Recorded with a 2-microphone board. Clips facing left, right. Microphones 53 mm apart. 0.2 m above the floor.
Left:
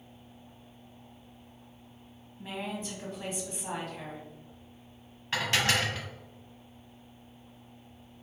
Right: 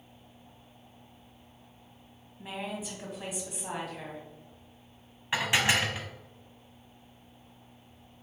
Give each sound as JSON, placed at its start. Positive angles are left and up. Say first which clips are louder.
{"t": 2.4, "sound": "a woman speaking", "louder": "even", "side_deg": -5, "distance_m": 1.4}
{"t": 5.3, "sound": "dishes clattering", "louder": "right 1 dB", "side_deg": -15, "distance_m": 0.7}